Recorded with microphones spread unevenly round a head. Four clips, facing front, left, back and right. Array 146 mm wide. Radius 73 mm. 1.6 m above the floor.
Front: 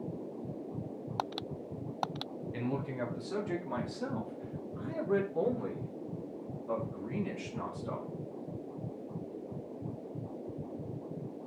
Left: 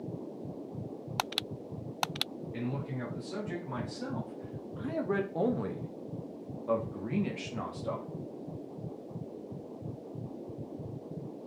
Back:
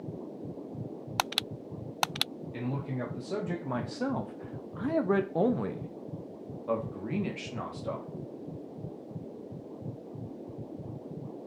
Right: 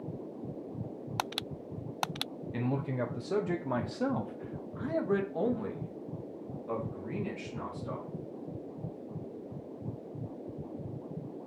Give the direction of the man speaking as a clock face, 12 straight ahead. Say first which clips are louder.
Right 4 dB, back 1 dB; 3 o'clock.